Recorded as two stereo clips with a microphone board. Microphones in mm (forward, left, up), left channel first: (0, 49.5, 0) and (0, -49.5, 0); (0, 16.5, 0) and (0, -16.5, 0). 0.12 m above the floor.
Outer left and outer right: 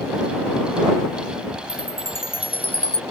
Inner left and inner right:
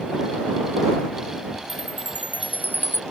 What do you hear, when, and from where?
1.7 s a chime: 65° left (ahead or behind)